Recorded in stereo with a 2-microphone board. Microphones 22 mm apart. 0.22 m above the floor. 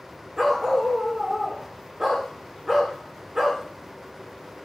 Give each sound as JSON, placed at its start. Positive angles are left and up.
{"t": 0.4, "sound": "a dog barking", "side_deg": -25, "distance_m": 5.5}